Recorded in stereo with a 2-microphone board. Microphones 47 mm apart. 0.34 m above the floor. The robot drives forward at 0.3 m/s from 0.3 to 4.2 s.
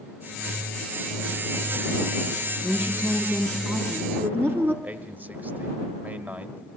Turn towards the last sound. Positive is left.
turn(degrees=-40)  # may be behind; listen again after turning